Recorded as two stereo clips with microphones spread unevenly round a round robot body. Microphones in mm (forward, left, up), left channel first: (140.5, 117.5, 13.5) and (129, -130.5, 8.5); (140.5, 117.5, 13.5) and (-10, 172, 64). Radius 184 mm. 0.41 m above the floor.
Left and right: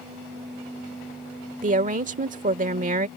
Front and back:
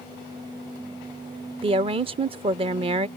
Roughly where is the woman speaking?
Behind right.